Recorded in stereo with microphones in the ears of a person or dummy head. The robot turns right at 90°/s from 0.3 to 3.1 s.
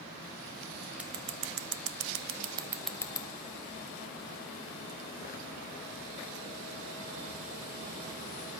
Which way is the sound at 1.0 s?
10° right (ahead or behind).